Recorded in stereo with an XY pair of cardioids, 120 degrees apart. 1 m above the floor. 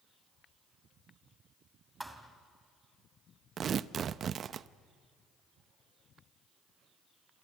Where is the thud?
5° right, 2.5 m.